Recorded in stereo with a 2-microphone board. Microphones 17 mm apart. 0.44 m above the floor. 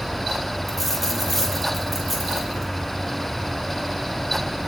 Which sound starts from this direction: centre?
A dropped coin, at 0.7 s.